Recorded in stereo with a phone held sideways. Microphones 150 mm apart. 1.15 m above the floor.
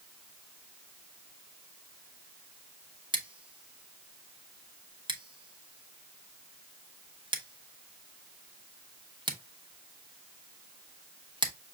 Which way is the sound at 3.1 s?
30° right (ahead or behind).